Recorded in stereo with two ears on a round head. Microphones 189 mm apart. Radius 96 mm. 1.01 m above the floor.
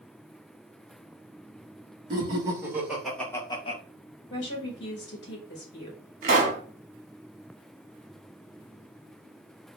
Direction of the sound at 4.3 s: 45° left (ahead or behind).